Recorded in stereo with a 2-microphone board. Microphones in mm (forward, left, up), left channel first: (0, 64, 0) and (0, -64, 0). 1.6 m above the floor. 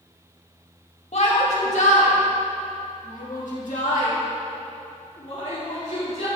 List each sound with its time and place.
1.1 s a shout: 60° left (ahead or behind), 2 m